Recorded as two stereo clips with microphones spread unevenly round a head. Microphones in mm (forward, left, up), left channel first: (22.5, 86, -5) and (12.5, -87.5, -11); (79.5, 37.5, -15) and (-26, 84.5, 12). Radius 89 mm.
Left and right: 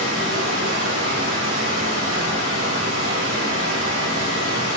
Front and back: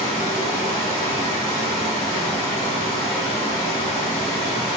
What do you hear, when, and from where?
0.0 s running water: 115° right, 2.5 m